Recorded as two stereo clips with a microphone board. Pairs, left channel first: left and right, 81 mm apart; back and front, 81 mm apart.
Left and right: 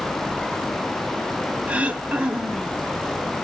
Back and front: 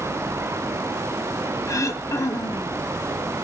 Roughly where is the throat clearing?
Behind right.